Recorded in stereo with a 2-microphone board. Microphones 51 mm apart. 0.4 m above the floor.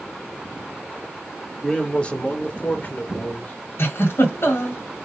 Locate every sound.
1.6 s a man speaking: 15° left (ahead or behind), 0.9 m; by 3.5 s 35° left (ahead or behind), 1.0 m
3.8 s a giggle: 55° left (ahead or behind), 1.8 m